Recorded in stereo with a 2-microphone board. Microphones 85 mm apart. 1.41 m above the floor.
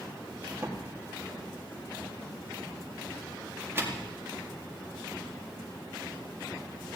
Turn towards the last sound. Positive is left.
turn(degrees=-25)  # may be behind; listen again after turning